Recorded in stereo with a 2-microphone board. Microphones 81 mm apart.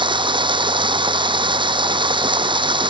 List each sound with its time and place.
0.0 s running water: 90° right